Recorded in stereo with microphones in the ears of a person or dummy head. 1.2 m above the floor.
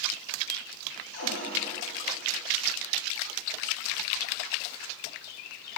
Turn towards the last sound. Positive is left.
turn(degrees=85)